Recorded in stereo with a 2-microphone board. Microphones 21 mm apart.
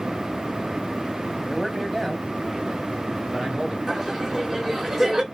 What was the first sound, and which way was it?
A man speaking, 10° left (ahead or behind).